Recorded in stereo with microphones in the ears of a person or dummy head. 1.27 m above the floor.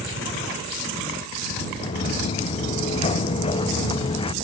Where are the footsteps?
30° left (ahead or behind); by 4.3 s 25° left (ahead or behind).